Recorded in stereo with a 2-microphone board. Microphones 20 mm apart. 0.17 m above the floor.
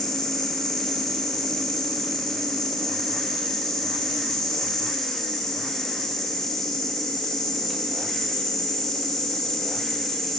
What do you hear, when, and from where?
0.0 s an insect: 20° left (ahead or behind), 3.5 m